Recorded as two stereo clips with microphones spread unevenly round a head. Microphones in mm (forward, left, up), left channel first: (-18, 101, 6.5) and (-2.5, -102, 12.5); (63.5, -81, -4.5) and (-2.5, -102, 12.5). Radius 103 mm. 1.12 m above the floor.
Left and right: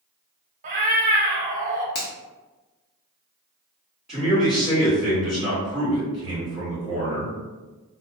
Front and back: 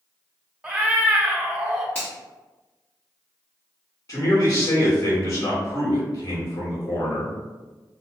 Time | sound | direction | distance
0.6 | a cat meowing | 105° right | 0.9 m
1.9 | a finger snap | 70° left | 0.8 m
4.1 | a man speaking | 5° left | 1.8 m